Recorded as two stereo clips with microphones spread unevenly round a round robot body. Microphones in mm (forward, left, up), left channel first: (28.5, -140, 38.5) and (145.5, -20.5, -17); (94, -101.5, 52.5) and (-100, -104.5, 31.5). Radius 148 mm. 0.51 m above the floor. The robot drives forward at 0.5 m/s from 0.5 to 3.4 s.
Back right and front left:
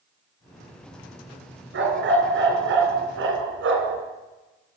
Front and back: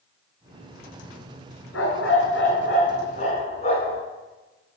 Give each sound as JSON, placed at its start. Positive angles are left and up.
{"t": 1.7, "sound": "a dog barking", "azimuth_deg": 50, "distance_m": 2.0}